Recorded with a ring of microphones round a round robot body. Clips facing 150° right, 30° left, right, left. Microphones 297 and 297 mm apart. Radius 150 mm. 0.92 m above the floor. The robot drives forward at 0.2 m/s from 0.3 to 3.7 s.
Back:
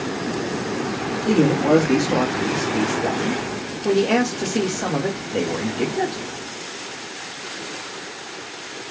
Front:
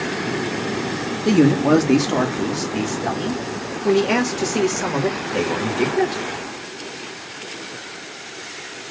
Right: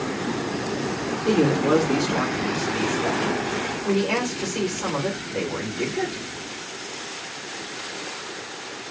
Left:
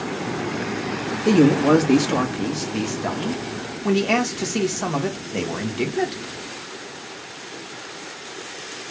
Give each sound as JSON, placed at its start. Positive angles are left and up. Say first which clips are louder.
{"t": 1.2, "sound": "a man speaking", "louder": "front 2 dB, left 5 dB", "azimuth_deg": 75, "distance_m": 1.4}